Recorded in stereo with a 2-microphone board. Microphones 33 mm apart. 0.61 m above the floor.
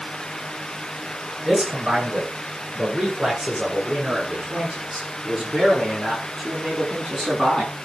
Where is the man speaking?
10° right (ahead or behind), 9.5 m; by 7.7 s 15° left (ahead or behind), 7.5 m.